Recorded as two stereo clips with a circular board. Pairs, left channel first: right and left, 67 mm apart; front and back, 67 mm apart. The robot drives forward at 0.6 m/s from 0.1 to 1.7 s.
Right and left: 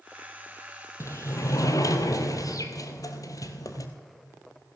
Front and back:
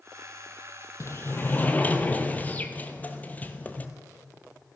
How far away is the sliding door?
About 1.3 m.